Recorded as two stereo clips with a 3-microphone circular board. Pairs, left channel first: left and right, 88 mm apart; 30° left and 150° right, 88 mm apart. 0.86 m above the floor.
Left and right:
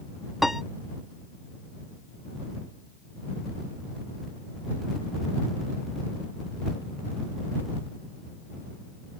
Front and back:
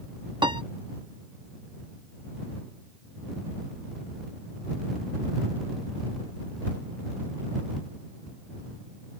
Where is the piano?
175° right.